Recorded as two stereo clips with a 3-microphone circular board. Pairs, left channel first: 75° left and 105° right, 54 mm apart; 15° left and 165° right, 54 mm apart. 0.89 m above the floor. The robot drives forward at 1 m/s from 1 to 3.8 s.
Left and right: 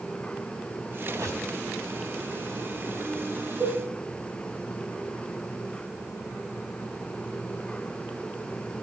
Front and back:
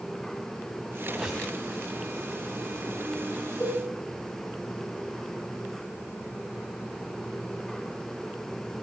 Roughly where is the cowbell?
Ahead right.